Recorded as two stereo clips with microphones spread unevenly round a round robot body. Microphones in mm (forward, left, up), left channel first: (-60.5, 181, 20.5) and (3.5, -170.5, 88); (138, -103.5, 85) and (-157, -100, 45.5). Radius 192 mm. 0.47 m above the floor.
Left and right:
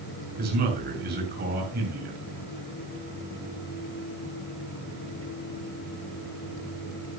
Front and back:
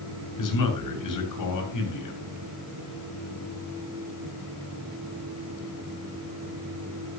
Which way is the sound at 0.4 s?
10° right.